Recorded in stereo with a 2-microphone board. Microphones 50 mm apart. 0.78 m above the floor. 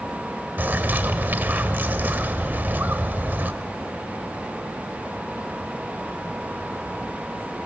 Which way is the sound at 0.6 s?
40° right (ahead or behind).